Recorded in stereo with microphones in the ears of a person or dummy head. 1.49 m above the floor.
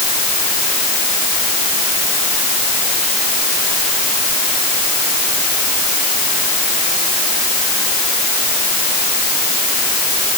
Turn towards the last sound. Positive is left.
No sound to turn to.